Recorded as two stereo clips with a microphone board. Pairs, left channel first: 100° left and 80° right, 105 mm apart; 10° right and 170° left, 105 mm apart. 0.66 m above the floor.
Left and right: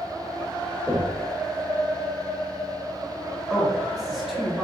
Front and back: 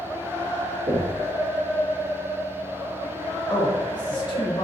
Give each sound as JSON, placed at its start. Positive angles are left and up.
{"t": 0.9, "sound": "knocking", "azimuth_deg": -165, "distance_m": 1.6}
{"t": 3.5, "sound": "a man speaking", "azimuth_deg": 5, "distance_m": 1.6}